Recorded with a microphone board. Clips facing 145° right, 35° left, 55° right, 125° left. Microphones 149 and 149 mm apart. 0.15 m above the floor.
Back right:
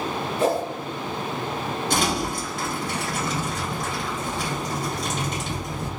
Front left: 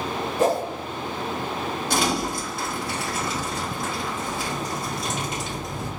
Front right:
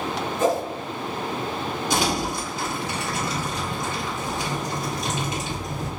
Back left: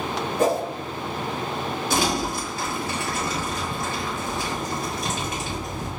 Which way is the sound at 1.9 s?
35° right.